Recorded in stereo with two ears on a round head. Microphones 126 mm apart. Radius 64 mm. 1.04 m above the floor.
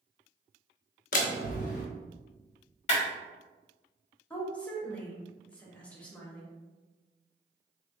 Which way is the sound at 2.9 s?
50° left (ahead or behind).